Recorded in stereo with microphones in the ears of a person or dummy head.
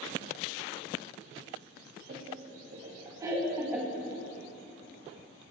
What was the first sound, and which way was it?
Laughter, 45° right (ahead or behind).